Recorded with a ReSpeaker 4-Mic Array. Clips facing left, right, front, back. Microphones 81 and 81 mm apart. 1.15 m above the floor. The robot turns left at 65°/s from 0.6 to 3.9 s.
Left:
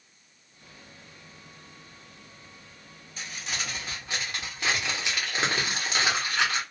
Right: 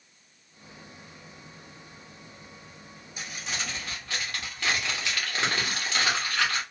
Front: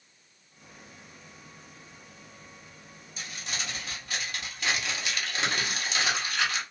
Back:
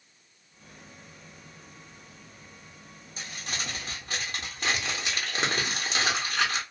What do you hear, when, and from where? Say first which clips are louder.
3.2 s crumpling: even, back 1 dB; 160° right, 0.9 m; by 6.6 s 150° left, 0.9 m